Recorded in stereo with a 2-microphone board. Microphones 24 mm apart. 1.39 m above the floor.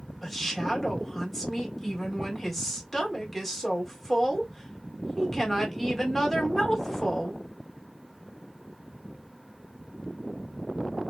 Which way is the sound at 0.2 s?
Centre (ahead or behind).